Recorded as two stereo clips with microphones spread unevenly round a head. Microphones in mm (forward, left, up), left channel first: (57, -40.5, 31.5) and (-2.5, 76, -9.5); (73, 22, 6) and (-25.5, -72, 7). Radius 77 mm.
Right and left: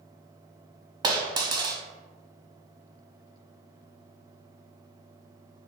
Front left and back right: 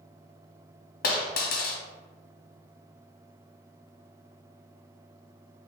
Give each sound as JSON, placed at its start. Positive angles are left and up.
{"t": 1.0, "sound": "a dropped coin", "azimuth_deg": 50, "distance_m": 0.7}